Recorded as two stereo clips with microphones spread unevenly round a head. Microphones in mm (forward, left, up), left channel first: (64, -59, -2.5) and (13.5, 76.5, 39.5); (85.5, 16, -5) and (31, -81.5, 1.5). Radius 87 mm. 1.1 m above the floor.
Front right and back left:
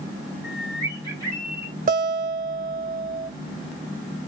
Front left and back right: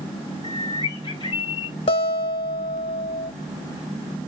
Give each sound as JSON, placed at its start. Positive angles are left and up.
{"t": 0.4, "sound": "a bird", "azimuth_deg": 85, "distance_m": 1.0}
{"t": 1.9, "sound": "a guitar", "azimuth_deg": 75, "distance_m": 1.0}